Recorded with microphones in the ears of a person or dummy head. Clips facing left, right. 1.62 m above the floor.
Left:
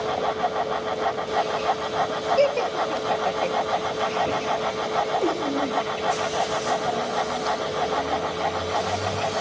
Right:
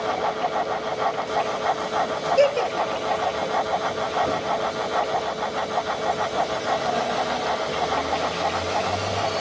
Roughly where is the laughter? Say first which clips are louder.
Right 2 dB; centre.